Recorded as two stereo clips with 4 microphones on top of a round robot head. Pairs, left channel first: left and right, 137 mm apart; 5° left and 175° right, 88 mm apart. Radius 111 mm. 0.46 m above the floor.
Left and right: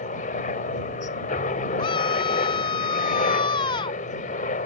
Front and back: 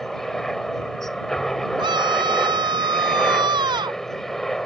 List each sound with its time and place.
0.0 s a helicopter: 90° left
1.8 s a scream: 150° left